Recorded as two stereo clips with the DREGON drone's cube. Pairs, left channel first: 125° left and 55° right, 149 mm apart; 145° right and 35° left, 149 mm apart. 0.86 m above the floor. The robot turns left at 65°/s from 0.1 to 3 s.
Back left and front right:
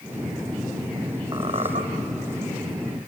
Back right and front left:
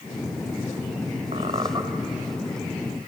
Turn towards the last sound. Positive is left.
turn(degrees=-105)